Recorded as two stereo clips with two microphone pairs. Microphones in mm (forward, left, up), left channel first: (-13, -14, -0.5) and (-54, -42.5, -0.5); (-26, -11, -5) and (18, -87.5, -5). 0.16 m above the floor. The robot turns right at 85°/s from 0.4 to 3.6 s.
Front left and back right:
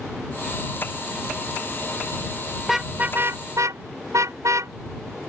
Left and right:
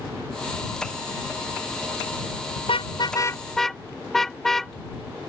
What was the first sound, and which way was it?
A car horn, 125° left.